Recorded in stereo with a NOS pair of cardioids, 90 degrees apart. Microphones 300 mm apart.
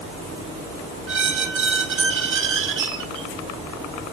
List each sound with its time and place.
1.1 s a squeak: 45° right, 1.5 m